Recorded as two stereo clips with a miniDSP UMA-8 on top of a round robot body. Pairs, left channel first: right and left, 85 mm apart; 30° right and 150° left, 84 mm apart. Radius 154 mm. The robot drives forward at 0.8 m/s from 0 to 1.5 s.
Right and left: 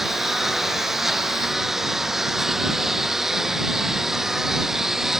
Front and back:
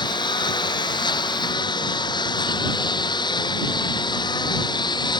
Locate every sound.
0.0 s a lawn mower: 5° left